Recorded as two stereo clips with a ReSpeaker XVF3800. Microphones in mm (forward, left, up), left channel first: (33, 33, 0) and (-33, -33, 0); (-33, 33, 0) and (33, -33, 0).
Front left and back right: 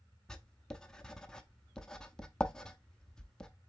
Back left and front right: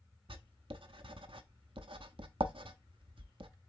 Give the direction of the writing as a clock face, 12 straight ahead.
1 o'clock.